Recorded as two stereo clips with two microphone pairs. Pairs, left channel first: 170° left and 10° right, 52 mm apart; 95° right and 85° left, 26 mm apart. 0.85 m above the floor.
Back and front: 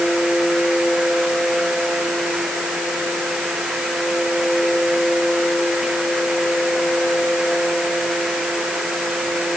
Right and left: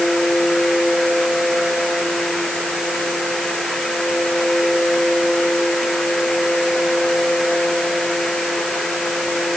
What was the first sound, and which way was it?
Only background noise.